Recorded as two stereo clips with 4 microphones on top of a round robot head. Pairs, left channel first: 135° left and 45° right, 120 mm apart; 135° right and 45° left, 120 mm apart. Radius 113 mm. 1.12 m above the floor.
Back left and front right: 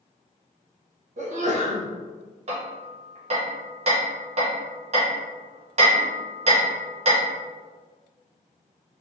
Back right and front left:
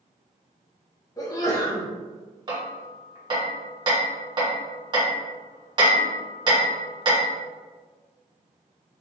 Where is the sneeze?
70° right, 1.1 m.